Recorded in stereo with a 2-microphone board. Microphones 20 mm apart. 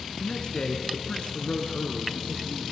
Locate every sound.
0.2 s a man speaking: 40° left (ahead or behind), 1.9 m; by 2.7 s 55° left (ahead or behind), 3.5 m